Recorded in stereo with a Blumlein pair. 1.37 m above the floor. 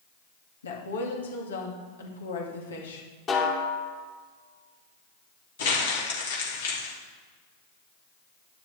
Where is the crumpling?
60° left, 3 m.